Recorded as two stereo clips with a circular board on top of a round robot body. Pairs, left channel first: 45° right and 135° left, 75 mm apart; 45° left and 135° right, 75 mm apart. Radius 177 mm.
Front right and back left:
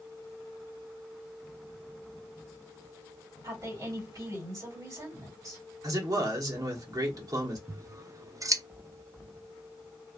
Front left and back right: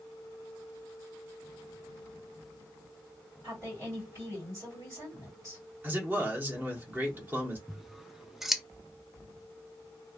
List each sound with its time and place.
3.4 s a woman speaking: straight behind, 2.0 m
5.8 s a man speaking: 165° left, 1.3 m
7.7 s scissors: 140° left, 0.5 m